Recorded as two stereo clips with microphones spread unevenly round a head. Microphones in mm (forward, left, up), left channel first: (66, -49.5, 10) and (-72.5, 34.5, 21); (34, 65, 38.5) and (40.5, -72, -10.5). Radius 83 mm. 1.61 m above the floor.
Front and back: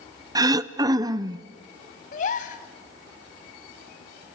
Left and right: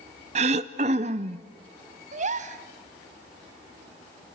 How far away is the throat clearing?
About 0.6 m.